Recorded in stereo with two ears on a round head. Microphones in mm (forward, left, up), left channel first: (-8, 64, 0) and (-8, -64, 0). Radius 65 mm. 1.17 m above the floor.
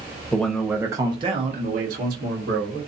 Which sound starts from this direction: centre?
A man speaking, at 0.3 s.